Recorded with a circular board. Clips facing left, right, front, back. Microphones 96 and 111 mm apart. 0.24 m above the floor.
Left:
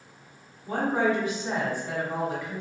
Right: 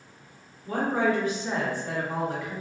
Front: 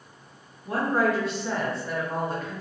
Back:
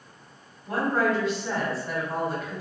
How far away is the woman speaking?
About 1.5 m.